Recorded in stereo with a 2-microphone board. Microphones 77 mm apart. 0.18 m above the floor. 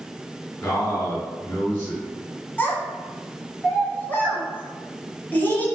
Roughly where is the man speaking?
Left.